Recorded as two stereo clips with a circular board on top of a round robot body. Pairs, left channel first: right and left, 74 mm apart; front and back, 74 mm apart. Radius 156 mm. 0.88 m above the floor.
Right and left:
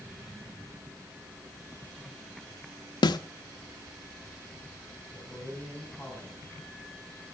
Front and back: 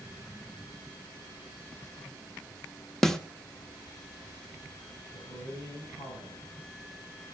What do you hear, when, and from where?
3.0 s a snare drum: 85° right, 1.0 m
5.1 s a man speaking: 10° left, 9 m